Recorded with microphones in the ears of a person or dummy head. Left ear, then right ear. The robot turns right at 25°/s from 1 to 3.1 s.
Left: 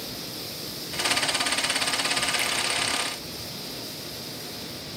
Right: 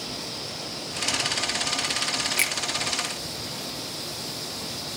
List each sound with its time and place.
2.4 s a finger snap: 25° right (ahead or behind), 1.4 m